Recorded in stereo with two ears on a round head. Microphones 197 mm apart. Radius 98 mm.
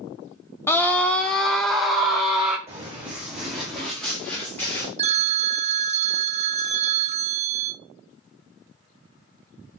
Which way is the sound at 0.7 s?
10° left (ahead or behind).